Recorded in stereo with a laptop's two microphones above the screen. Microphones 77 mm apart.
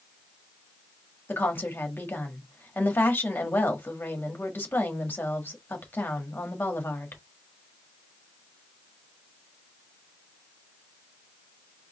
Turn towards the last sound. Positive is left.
turn(degrees=25)  # may be behind; listen again after turning